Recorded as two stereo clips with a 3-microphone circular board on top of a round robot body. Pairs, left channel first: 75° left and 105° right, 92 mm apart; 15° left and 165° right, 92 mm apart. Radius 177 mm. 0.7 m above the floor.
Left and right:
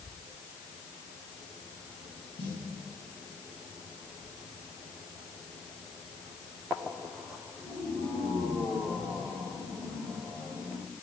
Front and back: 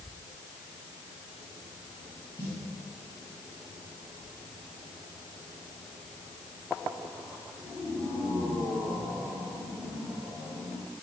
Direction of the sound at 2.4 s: 75° left.